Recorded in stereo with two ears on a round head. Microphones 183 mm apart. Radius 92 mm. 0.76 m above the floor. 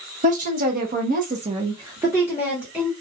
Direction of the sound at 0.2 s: 40° right (ahead or behind).